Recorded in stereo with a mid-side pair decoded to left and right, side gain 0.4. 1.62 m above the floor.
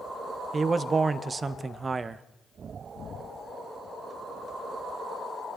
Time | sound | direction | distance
0.5 | a man speaking | 35° right | 0.7 m